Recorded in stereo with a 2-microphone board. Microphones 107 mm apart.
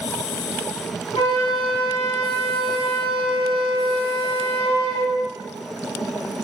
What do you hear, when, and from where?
1.1 s a flute: 55° left (ahead or behind), 2.5 m